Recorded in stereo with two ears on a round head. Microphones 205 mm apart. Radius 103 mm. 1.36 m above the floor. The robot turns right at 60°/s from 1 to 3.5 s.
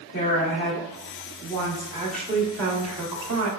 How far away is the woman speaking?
About 1.0 m.